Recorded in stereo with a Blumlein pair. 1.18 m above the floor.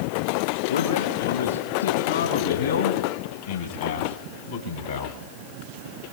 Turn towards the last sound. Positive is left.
turn(degrees=70)